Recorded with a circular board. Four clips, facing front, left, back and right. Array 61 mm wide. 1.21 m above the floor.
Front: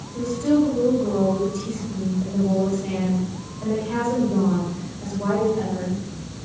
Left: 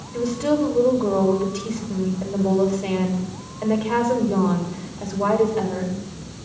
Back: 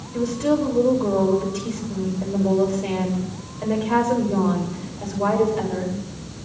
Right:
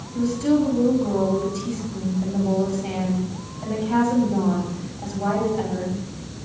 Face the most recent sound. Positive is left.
turn(degrees=115)